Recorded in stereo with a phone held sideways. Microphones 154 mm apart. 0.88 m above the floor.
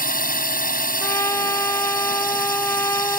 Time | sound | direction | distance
0.0 | a drone | 70° left (ahead or behind) | ?
1.0 | a trumpet | 15° left (ahead or behind) | ?